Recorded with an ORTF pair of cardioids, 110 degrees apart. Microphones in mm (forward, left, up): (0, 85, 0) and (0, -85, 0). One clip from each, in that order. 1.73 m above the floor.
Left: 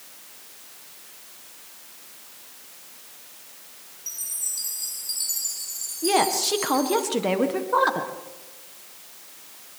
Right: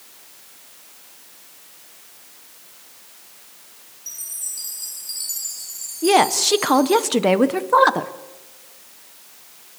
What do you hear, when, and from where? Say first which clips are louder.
4.1 s a chime: even; straight ahead, 4 m
6.0 s a woman speaking: right 6 dB; 40° right, 1.6 m